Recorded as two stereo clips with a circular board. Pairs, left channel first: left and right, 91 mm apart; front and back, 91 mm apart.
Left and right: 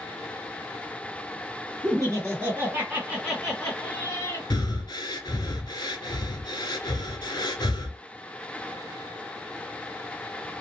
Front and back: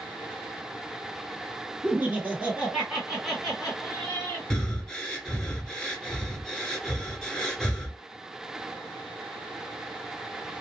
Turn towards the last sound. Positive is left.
turn(degrees=80)